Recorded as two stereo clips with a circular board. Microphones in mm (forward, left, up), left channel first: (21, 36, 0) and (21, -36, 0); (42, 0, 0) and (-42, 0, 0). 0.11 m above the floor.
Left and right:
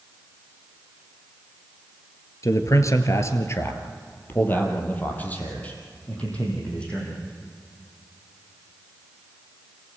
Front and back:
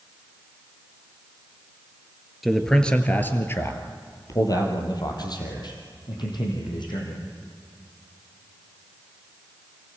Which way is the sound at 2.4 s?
95° left.